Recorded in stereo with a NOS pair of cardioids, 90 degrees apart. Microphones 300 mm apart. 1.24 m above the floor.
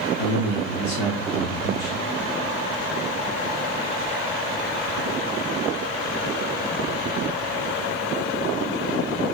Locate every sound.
0.2 s a man speaking: 65° left, 1.9 m